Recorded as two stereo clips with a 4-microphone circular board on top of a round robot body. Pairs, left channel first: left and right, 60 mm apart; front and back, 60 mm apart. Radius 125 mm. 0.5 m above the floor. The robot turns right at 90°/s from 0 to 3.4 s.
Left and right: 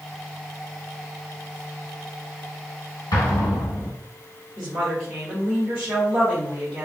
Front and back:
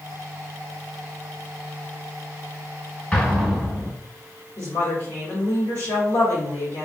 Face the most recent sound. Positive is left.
turn(degrees=-15)